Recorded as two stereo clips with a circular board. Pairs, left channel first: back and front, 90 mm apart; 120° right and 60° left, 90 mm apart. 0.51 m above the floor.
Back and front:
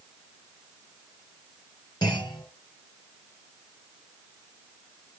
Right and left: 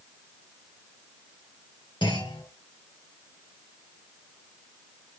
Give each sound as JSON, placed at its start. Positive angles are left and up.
{"t": 2.0, "sound": "a clunk", "azimuth_deg": -140, "distance_m": 4.5}